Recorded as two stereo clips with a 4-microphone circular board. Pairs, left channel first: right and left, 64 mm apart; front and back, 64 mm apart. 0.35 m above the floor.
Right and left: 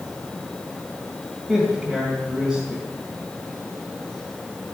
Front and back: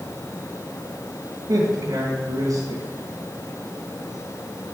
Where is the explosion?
No explosion in this recording.